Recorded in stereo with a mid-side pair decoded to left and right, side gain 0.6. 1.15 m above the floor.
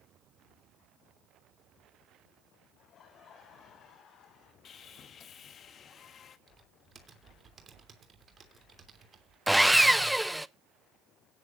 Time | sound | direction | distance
2.8 | laughter | 45° left | 5 m
4.7 | sawing | 45° left | 1.3 m
6.5 | typing on a keyboard | 30° right | 3 m
9.5 | sawing | straight ahead | 0.6 m